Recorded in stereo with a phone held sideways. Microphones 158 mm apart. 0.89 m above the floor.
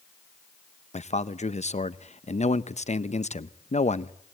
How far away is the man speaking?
About 0.6 m.